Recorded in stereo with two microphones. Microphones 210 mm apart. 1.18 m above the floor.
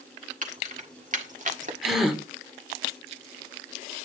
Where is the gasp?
Centre (ahead or behind), 1.8 m.